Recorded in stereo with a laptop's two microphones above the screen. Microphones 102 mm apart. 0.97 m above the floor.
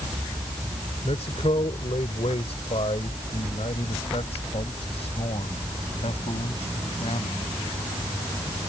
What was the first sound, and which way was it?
A man speaking, 80° left.